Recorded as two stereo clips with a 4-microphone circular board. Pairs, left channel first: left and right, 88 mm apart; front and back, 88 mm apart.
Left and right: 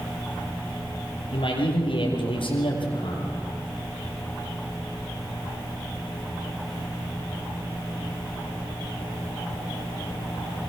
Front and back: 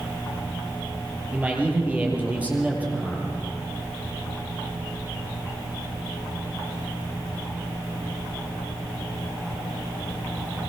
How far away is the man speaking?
About 6.5 m.